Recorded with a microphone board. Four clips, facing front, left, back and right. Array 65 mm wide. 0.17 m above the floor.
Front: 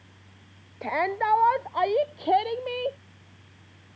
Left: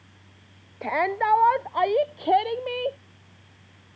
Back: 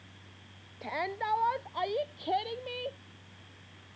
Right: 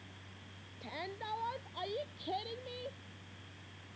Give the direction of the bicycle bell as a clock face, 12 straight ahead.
I don't hear a bicycle bell.